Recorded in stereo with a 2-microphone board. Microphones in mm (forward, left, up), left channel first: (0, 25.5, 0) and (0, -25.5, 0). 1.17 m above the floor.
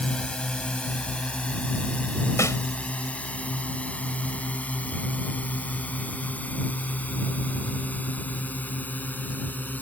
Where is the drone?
20° left (ahead or behind); by 9.8 s 35° left (ahead or behind).